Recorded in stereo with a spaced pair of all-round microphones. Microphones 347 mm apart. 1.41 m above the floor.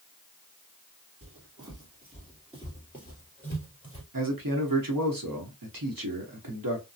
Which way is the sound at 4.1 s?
65° right (ahead or behind).